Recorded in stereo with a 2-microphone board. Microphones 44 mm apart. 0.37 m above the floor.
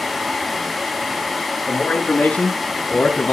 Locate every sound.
1.7 s a man speaking: 40° left (ahead or behind), 5 m; by 3.3 s 45° left (ahead or behind), 3.5 m